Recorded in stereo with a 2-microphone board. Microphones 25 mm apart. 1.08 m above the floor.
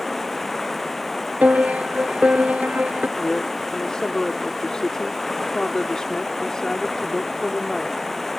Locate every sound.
0.0 s running water: 10° left (ahead or behind)
1.4 s a piano: 75° right (ahead or behind)
3.2 s a woman speaking: 30° left (ahead or behind)